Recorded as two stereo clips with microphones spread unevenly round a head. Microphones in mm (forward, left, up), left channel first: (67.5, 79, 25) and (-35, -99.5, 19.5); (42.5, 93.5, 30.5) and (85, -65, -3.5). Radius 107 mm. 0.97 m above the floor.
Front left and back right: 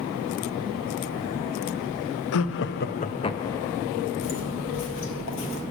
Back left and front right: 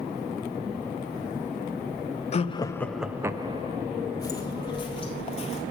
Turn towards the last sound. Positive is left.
turn(degrees=75)